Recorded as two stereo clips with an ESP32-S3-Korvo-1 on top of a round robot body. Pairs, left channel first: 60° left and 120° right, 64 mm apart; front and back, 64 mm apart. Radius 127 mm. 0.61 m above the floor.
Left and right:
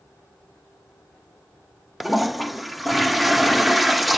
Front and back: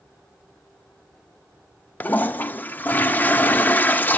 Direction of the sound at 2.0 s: 30° right.